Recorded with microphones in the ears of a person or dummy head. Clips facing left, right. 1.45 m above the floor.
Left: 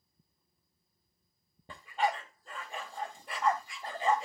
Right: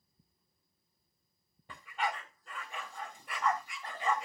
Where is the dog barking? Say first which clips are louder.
Left 5 dB; 30° left (ahead or behind), 2 m.